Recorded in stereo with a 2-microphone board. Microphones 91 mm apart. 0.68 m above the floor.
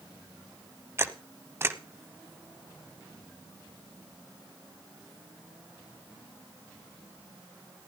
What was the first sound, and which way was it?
A camera shutter, 25° right (ahead or behind).